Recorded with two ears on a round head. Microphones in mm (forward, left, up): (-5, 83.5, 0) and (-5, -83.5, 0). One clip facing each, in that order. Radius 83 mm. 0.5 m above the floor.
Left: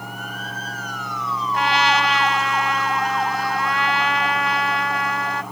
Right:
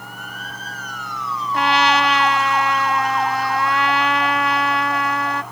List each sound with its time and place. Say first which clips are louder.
1.5 s a trumpet: right 3 dB; 70° right (ahead or behind)